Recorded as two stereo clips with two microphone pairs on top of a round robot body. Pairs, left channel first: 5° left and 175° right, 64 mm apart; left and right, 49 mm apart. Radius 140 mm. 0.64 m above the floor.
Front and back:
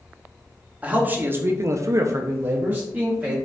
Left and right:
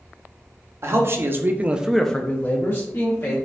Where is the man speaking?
105° right, 1.0 m; by 3.4 s 110° left, 1.2 m.